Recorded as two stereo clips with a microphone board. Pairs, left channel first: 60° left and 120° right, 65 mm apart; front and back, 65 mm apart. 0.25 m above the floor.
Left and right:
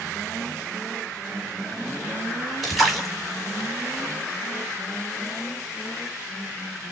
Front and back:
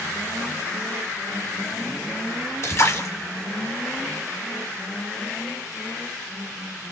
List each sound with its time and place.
2.6 s a splash: 25° right, 2 m